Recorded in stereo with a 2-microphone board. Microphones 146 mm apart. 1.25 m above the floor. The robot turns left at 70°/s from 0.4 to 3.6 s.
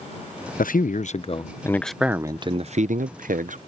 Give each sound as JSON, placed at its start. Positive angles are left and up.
{"t": 0.6, "sound": "a man speaking", "azimuth_deg": 95}